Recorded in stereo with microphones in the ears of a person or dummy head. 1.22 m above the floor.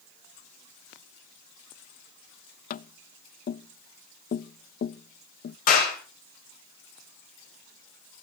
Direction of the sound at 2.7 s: 50° left (ahead or behind).